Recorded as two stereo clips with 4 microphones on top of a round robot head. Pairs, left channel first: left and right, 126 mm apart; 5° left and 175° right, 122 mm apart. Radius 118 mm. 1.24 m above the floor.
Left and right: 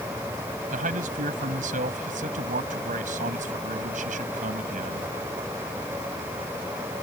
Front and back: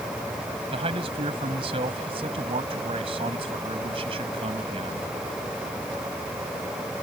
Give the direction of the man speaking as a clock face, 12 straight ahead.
4 o'clock.